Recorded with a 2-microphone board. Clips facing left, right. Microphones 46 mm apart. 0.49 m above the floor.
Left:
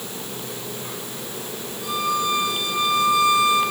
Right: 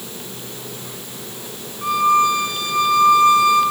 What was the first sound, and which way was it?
A violin, 45° right (ahead or behind).